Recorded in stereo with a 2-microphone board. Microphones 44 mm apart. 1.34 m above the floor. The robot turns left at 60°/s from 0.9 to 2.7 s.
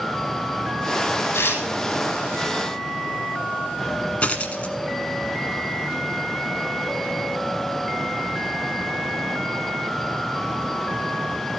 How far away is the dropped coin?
About 1.5 m.